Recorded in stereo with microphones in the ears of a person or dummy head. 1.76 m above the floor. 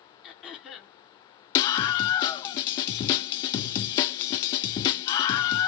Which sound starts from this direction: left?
A scream, at 1.6 s.